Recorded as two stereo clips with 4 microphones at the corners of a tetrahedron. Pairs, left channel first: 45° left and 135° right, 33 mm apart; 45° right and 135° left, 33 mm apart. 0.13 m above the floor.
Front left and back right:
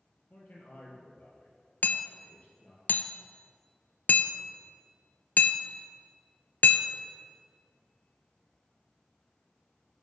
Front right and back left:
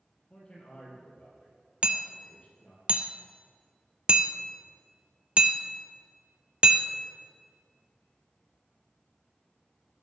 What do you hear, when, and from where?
0.3 s a man speaking: 10° left, 4 m
1.8 s hammering: 80° left, 0.6 m